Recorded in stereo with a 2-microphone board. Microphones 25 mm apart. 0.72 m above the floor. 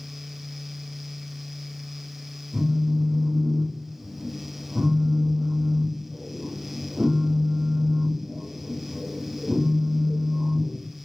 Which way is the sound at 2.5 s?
60° right (ahead or behind).